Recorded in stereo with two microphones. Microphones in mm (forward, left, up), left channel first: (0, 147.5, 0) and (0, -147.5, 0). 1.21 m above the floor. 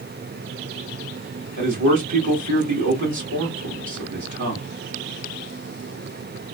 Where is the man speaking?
75° right (ahead or behind), 2 m.